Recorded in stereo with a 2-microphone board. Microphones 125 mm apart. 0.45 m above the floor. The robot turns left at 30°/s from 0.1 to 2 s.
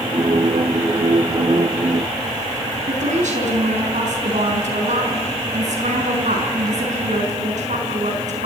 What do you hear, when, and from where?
2.9 s a woman speaking: 75° right (ahead or behind), 5 m